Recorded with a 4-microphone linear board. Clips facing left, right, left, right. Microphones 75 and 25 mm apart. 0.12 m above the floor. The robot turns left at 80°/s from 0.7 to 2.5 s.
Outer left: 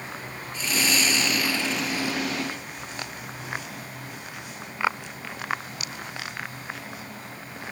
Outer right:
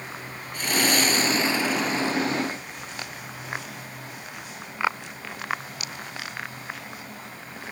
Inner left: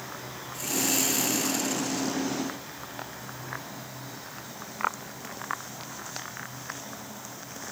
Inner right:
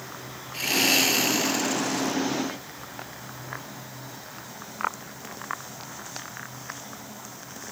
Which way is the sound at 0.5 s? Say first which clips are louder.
Outer right 3 dB, inner right 7 dB; 90° right.